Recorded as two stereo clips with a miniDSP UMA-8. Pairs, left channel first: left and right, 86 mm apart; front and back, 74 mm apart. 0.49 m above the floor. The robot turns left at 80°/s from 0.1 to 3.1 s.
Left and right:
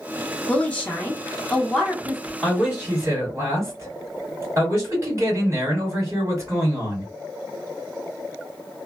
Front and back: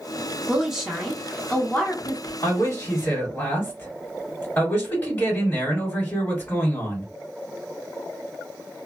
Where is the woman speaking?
130° left, 0.8 m; by 2.3 s 15° right, 0.8 m.